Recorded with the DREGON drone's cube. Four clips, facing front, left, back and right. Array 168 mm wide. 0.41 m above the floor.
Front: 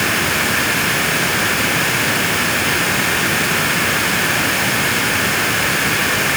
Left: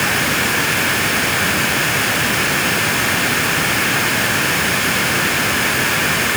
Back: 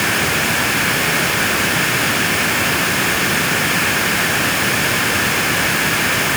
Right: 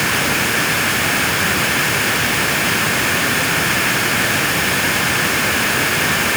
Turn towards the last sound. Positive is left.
No sound to turn to.